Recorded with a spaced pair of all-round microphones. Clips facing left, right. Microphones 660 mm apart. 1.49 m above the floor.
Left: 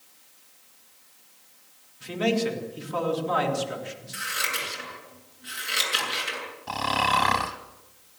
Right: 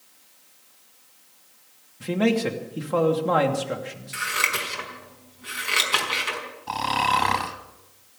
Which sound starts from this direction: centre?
Snoring, at 6.7 s.